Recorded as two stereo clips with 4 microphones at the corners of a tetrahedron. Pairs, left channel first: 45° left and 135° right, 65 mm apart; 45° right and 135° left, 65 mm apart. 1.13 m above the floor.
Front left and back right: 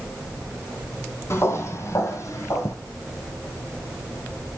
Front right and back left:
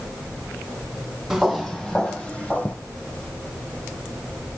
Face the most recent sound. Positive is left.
turn(degrees=15)